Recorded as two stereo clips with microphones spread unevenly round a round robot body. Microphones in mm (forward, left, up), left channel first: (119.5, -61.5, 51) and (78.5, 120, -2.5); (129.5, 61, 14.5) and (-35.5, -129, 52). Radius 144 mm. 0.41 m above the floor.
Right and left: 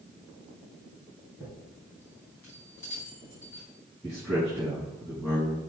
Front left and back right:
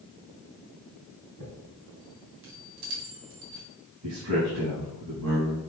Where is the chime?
160° right, 3 m.